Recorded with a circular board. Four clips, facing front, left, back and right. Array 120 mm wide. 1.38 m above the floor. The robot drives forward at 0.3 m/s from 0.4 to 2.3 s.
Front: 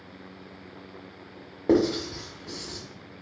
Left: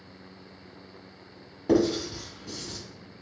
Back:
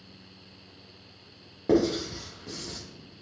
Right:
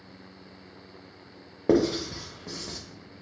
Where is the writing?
70° right, 0.8 m; by 2.8 s 90° right, 0.8 m.